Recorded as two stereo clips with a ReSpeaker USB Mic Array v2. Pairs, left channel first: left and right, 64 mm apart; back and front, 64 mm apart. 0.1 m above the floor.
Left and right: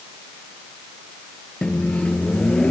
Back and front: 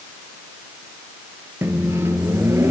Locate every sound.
1.6 s a microwave: 25° left, 1.5 m